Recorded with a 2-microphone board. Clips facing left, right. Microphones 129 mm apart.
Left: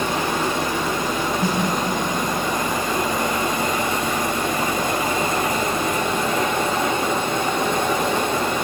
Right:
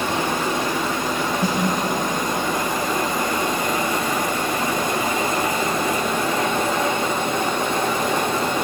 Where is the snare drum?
25° left (ahead or behind), 4 m.